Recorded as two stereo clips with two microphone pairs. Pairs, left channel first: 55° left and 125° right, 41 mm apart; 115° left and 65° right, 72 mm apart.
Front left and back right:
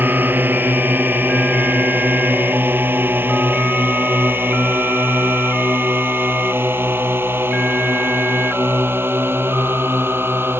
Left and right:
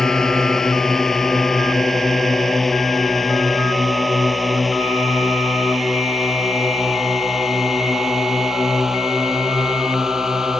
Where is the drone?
160° right; by 10.6 s 145° right.